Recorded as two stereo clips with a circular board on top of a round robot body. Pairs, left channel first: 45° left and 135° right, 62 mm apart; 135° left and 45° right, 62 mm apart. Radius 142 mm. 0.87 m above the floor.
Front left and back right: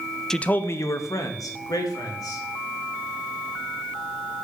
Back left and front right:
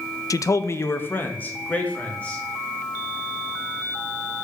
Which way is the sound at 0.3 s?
125° left.